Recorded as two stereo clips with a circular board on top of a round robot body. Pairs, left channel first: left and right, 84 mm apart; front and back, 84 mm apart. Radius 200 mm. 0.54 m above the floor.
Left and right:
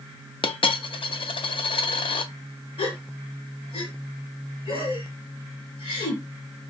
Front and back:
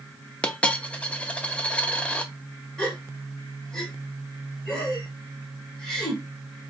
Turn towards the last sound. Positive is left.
turn(degrees=80)